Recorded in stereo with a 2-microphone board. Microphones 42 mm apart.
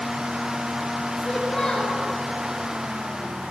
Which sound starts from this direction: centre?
A child speaking, at 1.2 s.